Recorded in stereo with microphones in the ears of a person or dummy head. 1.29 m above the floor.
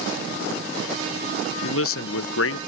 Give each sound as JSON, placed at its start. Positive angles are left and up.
{"t": 1.6, "sound": "a man speaking", "side_deg": 70}